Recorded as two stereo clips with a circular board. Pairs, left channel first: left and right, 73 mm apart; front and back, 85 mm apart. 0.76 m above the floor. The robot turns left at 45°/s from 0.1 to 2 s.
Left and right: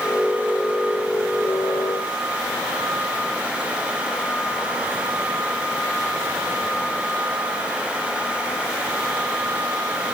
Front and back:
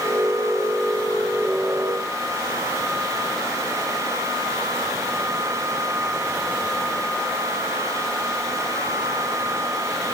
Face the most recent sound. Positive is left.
No sound to turn to.